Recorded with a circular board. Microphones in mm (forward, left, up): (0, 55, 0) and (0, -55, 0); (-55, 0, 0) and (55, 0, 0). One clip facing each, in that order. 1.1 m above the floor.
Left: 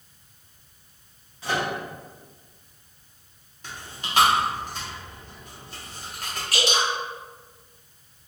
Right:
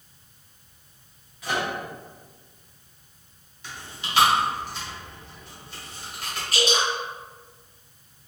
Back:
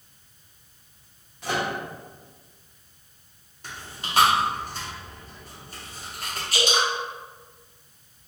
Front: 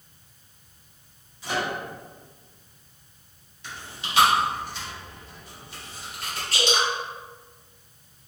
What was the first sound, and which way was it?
A microwave, 150° left.